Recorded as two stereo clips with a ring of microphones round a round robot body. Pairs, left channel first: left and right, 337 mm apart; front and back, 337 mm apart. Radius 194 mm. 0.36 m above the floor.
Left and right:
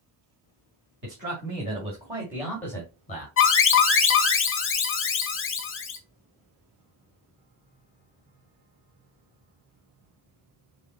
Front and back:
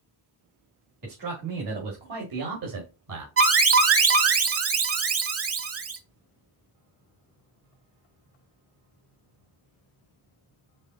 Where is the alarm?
140° left, 1.2 m.